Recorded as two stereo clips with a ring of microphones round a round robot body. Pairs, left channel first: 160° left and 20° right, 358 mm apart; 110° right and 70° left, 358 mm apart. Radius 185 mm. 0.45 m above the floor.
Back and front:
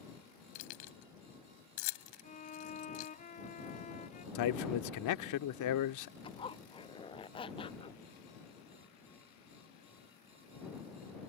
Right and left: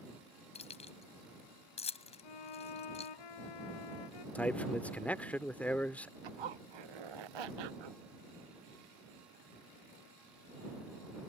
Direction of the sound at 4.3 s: 165° left.